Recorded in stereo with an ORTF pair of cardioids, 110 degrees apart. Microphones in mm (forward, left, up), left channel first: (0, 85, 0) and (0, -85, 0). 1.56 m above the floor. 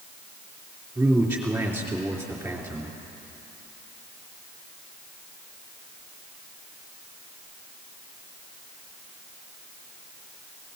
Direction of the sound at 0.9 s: 10° right.